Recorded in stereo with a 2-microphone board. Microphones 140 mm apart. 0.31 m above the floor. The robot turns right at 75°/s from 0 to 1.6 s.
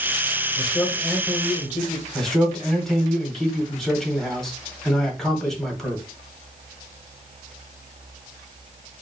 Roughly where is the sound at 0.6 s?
Behind left.